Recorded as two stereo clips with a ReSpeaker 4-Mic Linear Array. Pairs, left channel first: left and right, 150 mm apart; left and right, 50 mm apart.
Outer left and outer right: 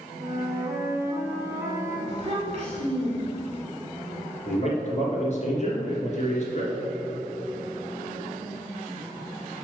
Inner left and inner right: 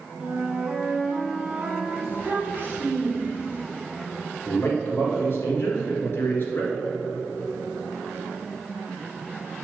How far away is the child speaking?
About 2.5 m.